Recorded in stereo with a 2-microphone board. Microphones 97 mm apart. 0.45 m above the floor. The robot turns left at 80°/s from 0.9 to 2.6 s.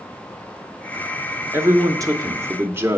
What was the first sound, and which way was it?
A man speaking, 50° right.